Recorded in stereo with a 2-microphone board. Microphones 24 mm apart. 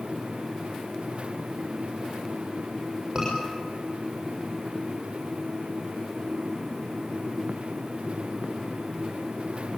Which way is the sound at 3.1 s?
30° right (ahead or behind).